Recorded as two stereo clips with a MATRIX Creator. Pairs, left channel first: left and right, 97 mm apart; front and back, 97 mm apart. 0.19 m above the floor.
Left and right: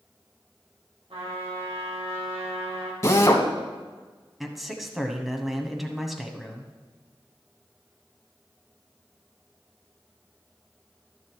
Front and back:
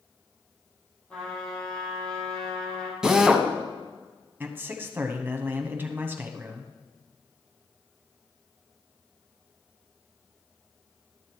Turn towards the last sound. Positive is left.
turn(degrees=-175)